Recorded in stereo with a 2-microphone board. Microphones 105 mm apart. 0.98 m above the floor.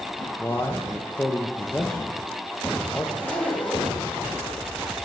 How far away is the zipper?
About 1.2 m.